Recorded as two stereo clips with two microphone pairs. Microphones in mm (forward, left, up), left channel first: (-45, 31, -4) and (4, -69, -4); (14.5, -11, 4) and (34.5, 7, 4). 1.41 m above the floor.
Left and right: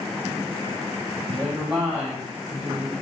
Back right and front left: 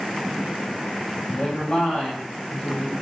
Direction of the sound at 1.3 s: 125° right.